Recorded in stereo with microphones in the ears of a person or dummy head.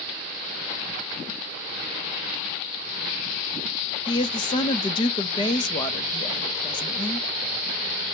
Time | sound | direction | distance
4.1 | a woman speaking | 25° left (ahead or behind) | 0.7 m